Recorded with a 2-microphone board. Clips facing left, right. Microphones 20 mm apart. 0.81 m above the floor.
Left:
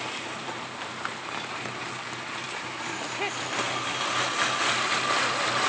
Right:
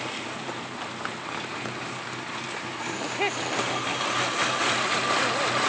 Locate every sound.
2.8 s laughter: 10° right (ahead or behind)